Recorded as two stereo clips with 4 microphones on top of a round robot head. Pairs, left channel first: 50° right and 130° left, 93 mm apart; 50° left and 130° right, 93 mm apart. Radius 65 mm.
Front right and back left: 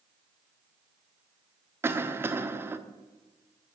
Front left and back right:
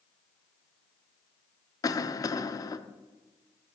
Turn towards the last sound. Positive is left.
turn(degrees=75)